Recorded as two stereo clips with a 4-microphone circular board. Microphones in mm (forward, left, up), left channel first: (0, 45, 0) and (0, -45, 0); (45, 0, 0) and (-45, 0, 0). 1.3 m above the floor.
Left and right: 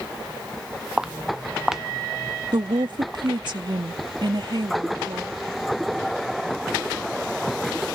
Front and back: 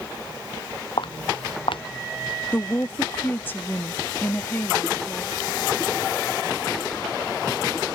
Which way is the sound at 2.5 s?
65° right.